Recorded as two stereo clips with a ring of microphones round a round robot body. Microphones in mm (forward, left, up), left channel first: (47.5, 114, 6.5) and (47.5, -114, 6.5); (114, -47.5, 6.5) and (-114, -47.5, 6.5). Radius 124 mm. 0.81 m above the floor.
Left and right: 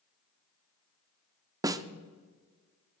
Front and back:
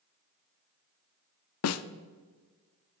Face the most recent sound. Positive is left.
turn(degrees=-15)